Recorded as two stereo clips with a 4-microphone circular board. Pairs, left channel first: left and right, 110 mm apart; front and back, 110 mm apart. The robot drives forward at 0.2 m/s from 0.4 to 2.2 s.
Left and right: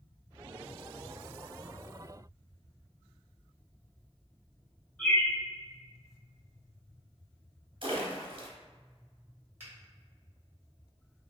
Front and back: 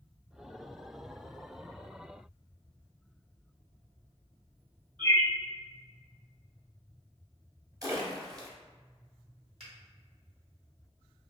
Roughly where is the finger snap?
Behind.